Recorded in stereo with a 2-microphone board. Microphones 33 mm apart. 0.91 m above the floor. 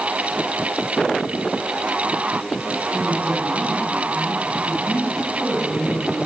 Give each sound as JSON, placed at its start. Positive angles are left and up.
{"t": 2.9, "sound": "a man speaking", "side_deg": -80, "distance_m": 9.5}